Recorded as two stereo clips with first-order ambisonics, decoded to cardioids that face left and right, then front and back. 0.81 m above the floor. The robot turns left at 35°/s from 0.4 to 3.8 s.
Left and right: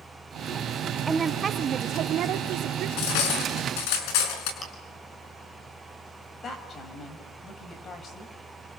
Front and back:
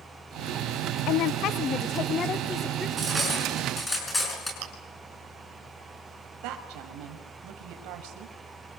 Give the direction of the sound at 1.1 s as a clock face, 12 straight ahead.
1 o'clock.